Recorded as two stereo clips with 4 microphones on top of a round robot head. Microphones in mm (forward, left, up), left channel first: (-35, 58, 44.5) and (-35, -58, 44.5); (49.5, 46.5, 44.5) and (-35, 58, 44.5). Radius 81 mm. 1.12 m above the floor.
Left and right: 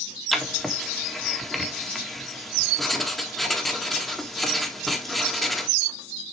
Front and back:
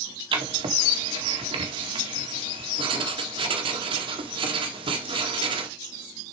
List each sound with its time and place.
0.3 s writing: straight behind, 2 m